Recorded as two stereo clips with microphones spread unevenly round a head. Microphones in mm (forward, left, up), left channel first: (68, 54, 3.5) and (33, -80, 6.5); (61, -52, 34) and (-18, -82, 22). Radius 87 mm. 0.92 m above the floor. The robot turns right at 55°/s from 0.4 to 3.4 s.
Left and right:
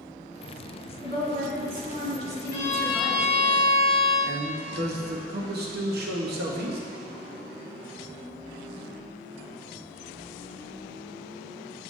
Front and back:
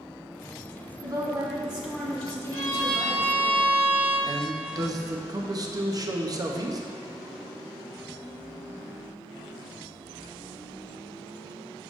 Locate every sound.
1.0 s a woman speaking: 125° right, 1.7 m; by 3.5 s 5° left, 1.7 m
2.5 s a violin: 145° left, 1.5 m; by 4.2 s 165° right, 1.5 m
4.3 s a man speaking: 120° right, 0.9 m